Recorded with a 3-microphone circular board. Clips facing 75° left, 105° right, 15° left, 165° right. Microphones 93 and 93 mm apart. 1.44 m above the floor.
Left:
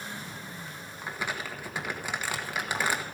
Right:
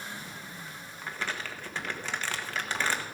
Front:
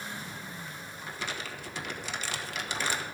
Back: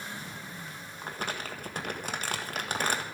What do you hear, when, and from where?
1.0 s crumpling: 150° left, 1.4 m